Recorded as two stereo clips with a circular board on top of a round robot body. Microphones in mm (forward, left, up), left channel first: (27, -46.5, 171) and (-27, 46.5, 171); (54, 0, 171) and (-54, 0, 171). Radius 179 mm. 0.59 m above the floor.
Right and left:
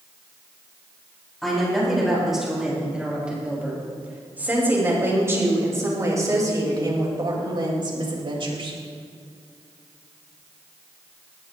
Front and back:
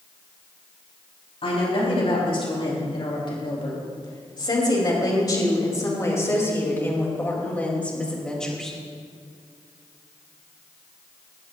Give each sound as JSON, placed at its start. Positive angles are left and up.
{"t": 1.4, "sound": "a woman speaking", "azimuth_deg": 30, "distance_m": 6.0}